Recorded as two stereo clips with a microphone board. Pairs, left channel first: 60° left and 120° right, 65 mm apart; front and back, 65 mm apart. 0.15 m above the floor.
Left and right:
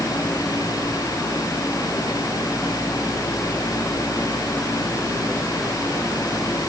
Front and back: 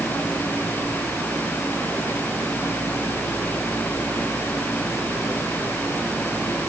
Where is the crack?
I don't hear a crack.